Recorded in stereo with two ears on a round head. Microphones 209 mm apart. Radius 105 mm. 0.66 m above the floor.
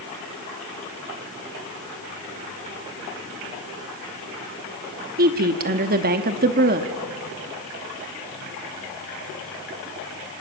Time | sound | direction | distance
5.2 | a woman speaking | 40° right (ahead or behind) | 1.0 m